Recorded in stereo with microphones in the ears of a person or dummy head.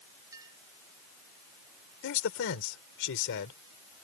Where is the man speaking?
65° left (ahead or behind).